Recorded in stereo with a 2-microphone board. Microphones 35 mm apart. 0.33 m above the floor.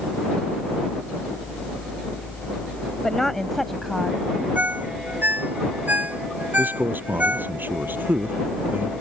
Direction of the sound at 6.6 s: 65° right (ahead or behind).